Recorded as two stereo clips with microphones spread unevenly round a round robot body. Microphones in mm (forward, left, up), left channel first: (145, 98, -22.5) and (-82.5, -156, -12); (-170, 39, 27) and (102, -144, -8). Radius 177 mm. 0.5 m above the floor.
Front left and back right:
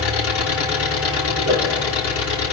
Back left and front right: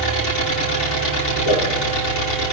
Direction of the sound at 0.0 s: 100° left.